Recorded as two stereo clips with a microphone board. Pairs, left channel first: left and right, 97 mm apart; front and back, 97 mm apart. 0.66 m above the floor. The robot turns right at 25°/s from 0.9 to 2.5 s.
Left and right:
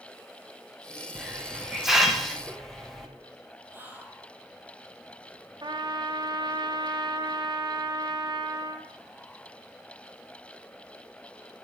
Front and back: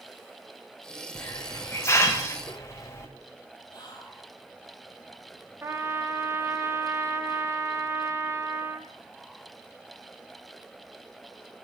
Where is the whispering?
25° right, 1.7 m.